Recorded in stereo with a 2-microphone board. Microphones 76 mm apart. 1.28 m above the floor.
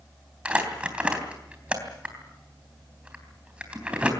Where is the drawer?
No drawer in this recording.